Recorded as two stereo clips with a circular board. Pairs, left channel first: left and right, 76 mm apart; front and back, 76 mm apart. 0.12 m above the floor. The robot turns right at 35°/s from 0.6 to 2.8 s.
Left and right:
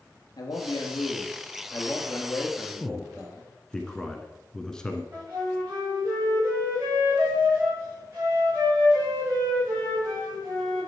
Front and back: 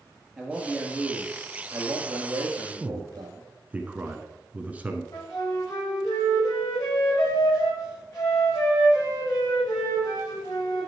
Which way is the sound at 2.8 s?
150° left.